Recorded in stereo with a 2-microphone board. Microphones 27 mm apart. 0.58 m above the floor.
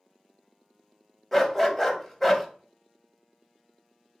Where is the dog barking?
10° left (ahead or behind), 0.8 m.